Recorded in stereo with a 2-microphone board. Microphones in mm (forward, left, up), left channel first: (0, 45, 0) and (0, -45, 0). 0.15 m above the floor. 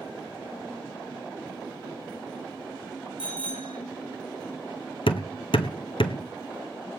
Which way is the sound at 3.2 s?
70° left (ahead or behind).